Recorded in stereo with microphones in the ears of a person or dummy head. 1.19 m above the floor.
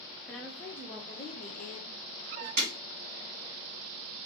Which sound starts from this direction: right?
Breaking glass, at 2.6 s.